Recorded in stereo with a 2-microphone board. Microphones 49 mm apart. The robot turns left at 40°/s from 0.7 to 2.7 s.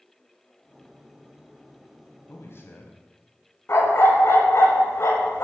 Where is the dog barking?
60° left (ahead or behind), 1.2 m.